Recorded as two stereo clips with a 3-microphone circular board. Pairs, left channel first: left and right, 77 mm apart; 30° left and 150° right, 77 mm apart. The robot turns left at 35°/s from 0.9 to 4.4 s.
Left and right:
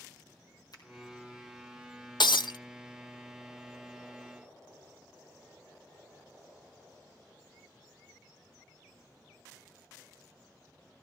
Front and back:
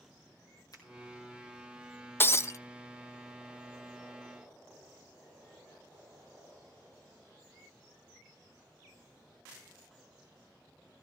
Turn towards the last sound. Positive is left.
turn(degrees=10)